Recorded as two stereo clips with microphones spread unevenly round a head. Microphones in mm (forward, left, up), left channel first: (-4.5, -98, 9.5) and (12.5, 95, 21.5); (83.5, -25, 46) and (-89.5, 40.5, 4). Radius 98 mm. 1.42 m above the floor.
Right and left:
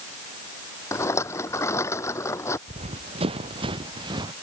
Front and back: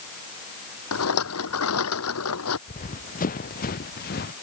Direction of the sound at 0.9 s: 20° right.